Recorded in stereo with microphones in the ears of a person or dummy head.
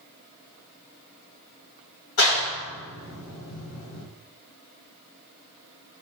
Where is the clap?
75° left (ahead or behind), 1.7 m.